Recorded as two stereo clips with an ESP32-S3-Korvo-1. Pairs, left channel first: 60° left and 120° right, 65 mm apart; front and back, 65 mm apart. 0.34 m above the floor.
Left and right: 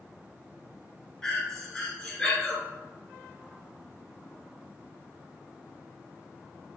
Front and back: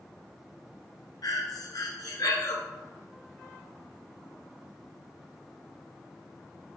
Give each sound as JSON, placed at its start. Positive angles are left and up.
{"t": 1.2, "sound": "breathing", "azimuth_deg": -20, "distance_m": 1.5}